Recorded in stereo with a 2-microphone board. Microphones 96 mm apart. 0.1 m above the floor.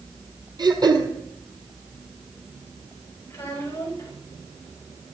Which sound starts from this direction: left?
A child speaking, at 3.3 s.